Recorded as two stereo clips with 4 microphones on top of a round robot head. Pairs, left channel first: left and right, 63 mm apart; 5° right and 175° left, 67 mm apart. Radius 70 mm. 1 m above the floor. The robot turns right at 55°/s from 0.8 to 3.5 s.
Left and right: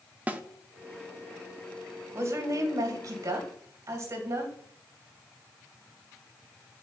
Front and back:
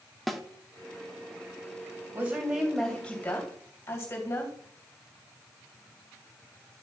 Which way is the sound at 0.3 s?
95° right.